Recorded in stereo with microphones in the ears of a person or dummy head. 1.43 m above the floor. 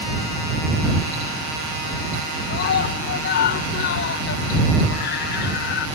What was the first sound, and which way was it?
A scream, 55° left (ahead or behind).